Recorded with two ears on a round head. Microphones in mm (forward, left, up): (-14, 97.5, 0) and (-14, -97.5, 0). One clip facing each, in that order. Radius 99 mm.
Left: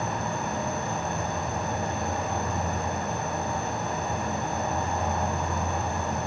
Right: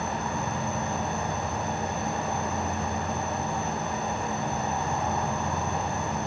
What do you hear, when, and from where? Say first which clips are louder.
0.0 s an insect: even; 55° left (ahead or behind), 3.5 m